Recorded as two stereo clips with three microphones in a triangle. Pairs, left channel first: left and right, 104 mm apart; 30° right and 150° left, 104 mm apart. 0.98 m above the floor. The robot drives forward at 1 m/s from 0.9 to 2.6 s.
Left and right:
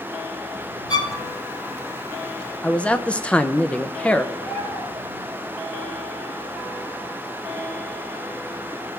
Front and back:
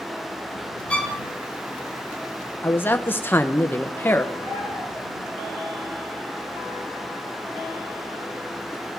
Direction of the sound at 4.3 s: 110° left.